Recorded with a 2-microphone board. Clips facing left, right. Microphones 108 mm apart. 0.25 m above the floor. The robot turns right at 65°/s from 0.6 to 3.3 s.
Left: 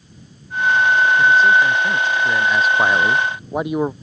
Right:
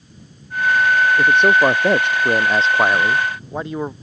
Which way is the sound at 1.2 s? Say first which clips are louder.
Right 1 dB; 125° right.